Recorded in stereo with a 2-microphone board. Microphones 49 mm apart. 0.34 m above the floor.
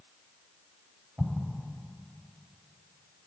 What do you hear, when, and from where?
1.2 s an explosion: 5° right (ahead or behind), 1.4 m